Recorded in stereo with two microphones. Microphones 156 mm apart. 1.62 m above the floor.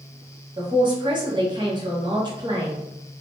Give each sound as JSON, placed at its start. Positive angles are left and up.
{"t": 0.6, "sound": "a man speaking", "side_deg": -30, "distance_m": 1.0}